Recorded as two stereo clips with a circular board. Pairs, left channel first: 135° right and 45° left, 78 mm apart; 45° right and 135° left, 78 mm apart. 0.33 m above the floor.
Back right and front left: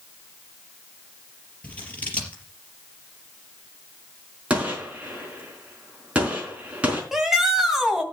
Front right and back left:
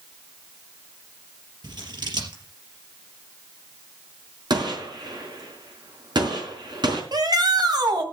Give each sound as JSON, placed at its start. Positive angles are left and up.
{"t": 1.6, "sound": "scissors", "azimuth_deg": 155, "distance_m": 4.0}
{"t": 4.5, "sound": "a gunshot", "azimuth_deg": 120, "distance_m": 4.0}
{"t": 7.1, "sound": "a shout", "azimuth_deg": 130, "distance_m": 2.5}